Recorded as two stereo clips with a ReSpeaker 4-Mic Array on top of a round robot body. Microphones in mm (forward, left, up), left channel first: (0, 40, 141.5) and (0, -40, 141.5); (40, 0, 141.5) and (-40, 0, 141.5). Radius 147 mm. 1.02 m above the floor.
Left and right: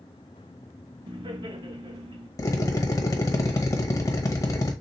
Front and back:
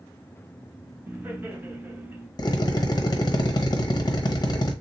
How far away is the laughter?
About 1.1 m.